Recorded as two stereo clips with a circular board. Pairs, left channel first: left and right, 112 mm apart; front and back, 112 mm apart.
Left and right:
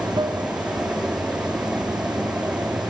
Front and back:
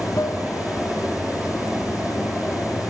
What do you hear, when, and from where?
0.0 s running water: 50° right, 0.7 m